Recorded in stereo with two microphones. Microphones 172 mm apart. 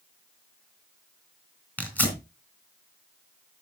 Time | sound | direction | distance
1.8 | tearing paper | 10° left (ahead or behind) | 3 m